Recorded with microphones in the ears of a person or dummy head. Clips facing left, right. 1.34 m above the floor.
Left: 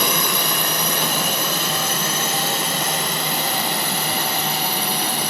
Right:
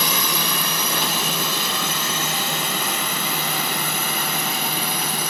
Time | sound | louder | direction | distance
0.0 | a drone | left 3 dB | 45° left (ahead or behind) | ?